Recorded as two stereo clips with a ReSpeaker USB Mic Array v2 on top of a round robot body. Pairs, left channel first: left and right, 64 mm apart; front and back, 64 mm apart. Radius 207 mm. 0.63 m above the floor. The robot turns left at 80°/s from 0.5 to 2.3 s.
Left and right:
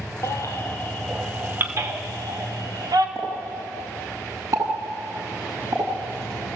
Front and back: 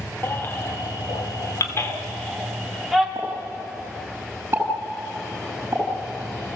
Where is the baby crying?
55° left, 2.5 m; by 3.0 s 90° right, 2.5 m.